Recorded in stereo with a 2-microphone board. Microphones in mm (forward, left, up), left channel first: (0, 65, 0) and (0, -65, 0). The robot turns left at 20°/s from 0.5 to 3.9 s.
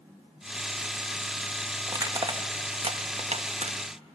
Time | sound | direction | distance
1.9 | crushing | 25° right (ahead or behind) | 1.1 m